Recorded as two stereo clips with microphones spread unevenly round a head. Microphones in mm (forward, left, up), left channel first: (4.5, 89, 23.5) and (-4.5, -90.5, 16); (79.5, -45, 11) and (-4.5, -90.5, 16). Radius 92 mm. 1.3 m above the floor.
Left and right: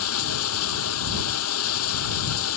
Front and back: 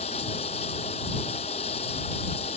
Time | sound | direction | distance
0.0 | running water | 85° left | ?